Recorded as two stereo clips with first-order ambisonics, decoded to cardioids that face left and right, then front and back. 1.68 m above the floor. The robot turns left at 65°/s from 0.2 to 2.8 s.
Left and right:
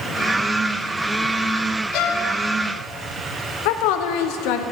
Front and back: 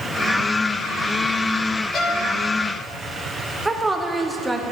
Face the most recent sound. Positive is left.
turn(degrees=95)